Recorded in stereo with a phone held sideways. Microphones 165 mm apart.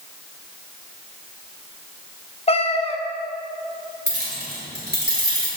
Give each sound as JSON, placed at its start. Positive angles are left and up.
{"t": 2.5, "sound": "a cat meowing", "side_deg": 35, "distance_m": 0.7}
{"t": 4.1, "sound": "keys jangling", "side_deg": -80, "distance_m": 4.0}